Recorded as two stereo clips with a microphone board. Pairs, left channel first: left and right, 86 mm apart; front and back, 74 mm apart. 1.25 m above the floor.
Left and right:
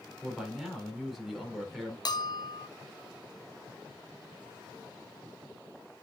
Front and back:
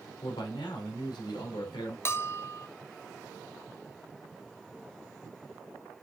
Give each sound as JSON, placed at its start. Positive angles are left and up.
{"t": 0.2, "sound": "a man speaking", "azimuth_deg": -5, "distance_m": 4.0}
{"t": 2.0, "sound": "a bell", "azimuth_deg": 55, "distance_m": 0.6}